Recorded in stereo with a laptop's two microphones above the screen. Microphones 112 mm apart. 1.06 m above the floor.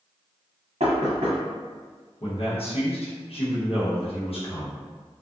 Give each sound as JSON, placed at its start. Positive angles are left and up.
{"t": 0.8, "sound": "knocking", "side_deg": -85, "distance_m": 0.8}
{"t": 2.2, "sound": "a man speaking", "side_deg": 65, "distance_m": 0.9}